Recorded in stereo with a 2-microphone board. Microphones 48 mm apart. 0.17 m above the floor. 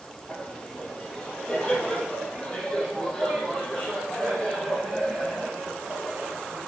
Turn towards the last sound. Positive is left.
turn(degrees=5)  # may be behind; listen again after turning